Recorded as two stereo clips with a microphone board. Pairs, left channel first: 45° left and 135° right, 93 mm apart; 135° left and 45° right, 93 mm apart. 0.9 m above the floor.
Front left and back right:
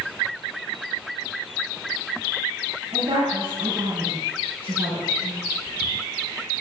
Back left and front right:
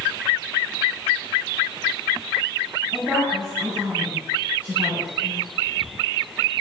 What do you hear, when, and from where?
2.9 s a woman speaking: 135° right, 6 m; by 5.4 s 115° right, 5 m